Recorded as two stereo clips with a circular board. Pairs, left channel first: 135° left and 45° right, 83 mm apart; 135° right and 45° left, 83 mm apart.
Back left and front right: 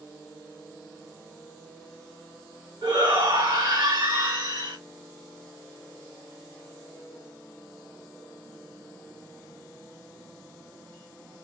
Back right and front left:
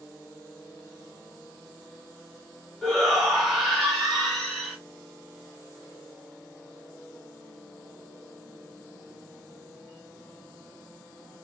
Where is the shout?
45° right, 4 m.